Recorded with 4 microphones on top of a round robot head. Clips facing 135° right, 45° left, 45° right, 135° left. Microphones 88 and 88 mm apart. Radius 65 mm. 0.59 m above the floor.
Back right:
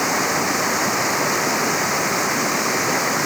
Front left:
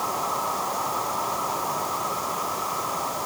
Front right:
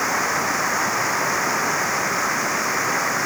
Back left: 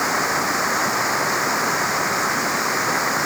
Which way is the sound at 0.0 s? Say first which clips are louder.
Back right 5 dB, back left 1 dB; 145° right.